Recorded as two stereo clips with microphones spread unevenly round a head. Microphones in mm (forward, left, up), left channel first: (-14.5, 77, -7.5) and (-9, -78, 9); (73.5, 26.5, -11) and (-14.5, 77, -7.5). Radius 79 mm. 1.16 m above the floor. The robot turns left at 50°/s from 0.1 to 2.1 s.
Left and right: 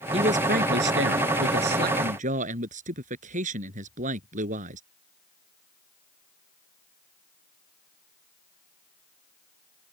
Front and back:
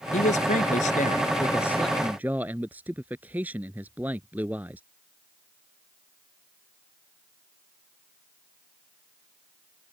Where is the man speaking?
30° right; by 4.8 s 130° right.